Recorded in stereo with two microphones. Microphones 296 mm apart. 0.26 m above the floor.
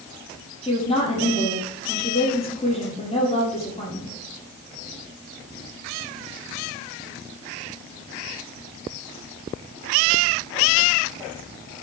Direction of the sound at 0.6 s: 20° left (ahead or behind).